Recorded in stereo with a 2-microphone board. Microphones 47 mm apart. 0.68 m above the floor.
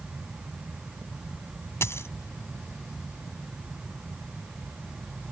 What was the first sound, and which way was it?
A dropped coin, 70° left (ahead or behind).